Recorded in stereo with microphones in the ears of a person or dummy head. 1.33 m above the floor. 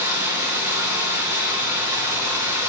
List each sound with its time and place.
0.0 s running water: 20° right (ahead or behind), 1.3 m